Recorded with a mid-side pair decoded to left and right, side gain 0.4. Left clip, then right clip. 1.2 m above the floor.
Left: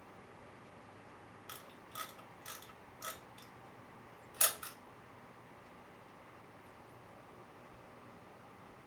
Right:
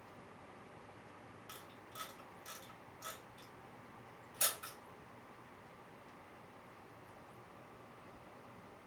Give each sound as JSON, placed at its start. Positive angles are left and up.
{"t": 1.5, "sound": "a camera shutter", "azimuth_deg": 60, "distance_m": 0.9}